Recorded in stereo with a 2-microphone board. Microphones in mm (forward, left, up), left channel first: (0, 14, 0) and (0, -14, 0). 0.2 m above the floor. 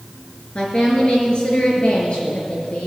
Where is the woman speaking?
30° left (ahead or behind), 3 m; by 2.9 s 45° left (ahead or behind), 4 m.